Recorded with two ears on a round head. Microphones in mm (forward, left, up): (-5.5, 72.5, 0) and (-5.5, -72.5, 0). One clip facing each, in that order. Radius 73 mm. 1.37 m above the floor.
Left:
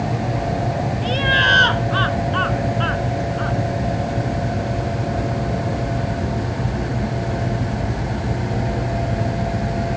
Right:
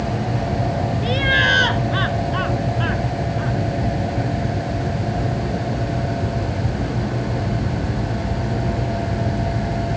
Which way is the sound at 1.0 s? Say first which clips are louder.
Even; 10° right (ahead or behind).